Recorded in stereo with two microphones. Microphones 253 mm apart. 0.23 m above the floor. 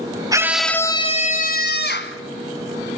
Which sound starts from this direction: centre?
A scream, at 0.3 s.